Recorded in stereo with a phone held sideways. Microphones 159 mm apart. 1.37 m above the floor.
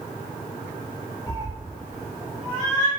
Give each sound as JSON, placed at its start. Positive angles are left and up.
{"t": 1.3, "sound": "a cat meowing", "side_deg": -10, "distance_m": 1.3}